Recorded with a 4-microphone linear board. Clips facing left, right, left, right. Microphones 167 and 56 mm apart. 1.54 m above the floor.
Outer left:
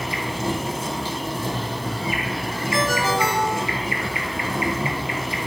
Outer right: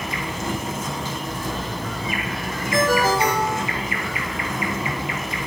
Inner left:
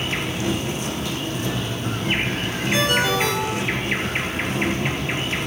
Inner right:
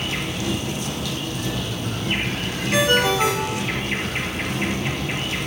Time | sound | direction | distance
0.0 | an insect | 30° left (ahead or behind) | 0.9 m
2.7 | a ringtone | 35° right (ahead or behind) | 1.6 m